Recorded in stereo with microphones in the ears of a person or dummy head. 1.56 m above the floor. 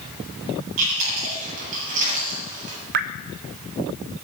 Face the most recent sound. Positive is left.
turn(degrees=-55)  # may be behind; listen again after turning